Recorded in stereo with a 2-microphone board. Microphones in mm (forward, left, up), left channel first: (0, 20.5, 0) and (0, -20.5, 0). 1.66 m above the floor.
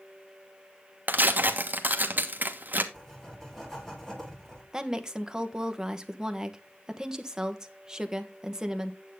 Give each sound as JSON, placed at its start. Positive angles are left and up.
{"t": 1.1, "sound": "tearing paper", "side_deg": -45, "distance_m": 1.3}
{"t": 2.9, "sound": "writing", "side_deg": 15, "distance_m": 4.0}
{"t": 4.7, "sound": "a woman speaking", "side_deg": -15, "distance_m": 1.2}